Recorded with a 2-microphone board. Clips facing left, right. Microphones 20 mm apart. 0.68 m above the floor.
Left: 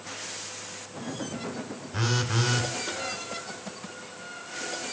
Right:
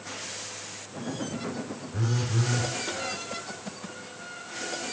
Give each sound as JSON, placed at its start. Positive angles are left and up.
{"t": 1.9, "sound": "a phone buzzing", "side_deg": 70, "distance_m": 1.5}